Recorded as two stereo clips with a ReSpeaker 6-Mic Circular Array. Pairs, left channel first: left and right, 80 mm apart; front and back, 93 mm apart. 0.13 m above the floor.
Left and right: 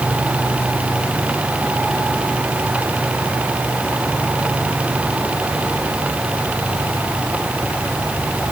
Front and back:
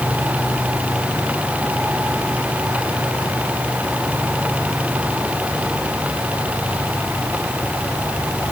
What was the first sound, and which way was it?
Only background noise.